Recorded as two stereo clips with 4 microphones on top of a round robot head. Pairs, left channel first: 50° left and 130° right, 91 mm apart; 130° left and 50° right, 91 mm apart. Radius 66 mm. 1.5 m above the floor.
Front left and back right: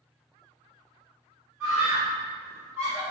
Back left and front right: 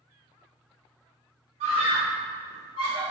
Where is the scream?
55° right, 2.5 m.